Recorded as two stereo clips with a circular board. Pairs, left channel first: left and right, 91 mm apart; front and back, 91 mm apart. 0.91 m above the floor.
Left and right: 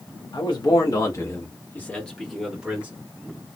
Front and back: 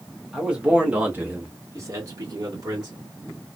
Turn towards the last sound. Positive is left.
turn(degrees=-160)